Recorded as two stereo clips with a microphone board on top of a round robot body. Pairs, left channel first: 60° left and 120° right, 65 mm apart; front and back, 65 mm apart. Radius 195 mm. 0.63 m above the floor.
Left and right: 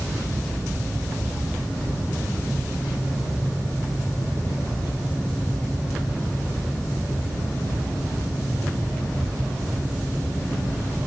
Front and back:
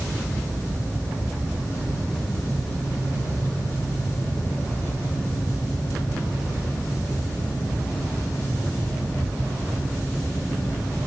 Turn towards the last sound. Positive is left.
No sound to turn to.